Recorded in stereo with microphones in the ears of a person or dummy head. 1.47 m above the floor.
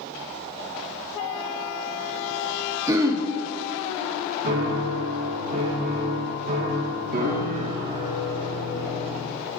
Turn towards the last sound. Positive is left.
turn(degrees=-40)  # may be behind; listen again after turning